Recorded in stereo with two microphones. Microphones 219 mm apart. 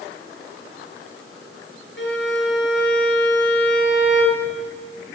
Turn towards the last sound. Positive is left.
turn(degrees=55)  # may be behind; listen again after turning